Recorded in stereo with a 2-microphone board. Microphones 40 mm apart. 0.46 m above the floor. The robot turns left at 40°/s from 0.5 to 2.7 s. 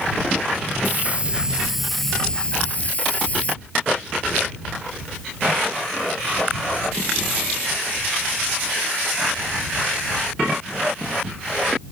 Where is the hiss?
135° right; by 3.5 s 150° left.